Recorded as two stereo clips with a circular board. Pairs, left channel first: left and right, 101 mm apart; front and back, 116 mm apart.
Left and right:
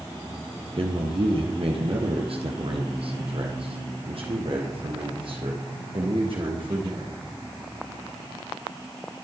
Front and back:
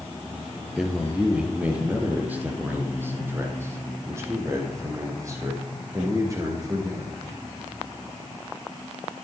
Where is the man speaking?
95° right, 2.5 m; by 7.2 s 120° right, 6 m.